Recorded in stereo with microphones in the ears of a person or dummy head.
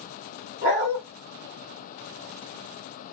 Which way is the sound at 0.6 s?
35° right (ahead or behind).